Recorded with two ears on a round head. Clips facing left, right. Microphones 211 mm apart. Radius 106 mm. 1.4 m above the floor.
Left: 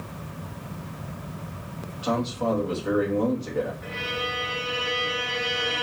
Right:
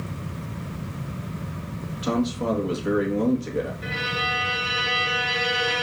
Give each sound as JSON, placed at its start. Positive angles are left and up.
{"t": 2.0, "sound": "a man speaking", "side_deg": -30, "distance_m": 1.9}
{"t": 3.8, "sound": "a violin", "side_deg": -55, "distance_m": 1.9}